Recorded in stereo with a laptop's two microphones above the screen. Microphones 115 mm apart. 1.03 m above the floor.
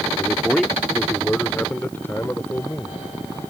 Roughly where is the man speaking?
Centre.